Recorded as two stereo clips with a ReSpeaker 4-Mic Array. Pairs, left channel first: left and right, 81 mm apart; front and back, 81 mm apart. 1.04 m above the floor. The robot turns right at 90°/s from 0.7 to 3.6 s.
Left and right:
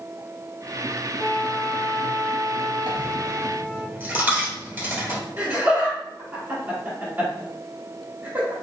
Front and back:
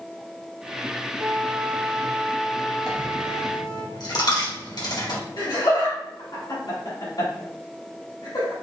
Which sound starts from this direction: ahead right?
Laughter, at 5.4 s.